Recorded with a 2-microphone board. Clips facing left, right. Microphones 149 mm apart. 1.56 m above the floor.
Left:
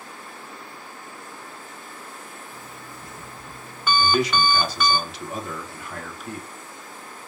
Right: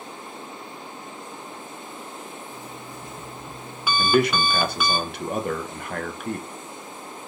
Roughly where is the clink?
I don't hear a clink.